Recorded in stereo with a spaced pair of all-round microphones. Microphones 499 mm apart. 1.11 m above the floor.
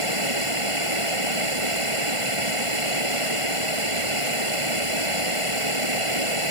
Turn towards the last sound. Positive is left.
turn(degrees=-90)